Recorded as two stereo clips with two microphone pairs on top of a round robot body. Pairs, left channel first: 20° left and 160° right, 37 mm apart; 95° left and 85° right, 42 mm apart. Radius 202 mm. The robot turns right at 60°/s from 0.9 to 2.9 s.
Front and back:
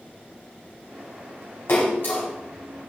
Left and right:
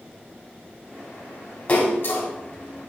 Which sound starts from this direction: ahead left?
A splash, at 1.7 s.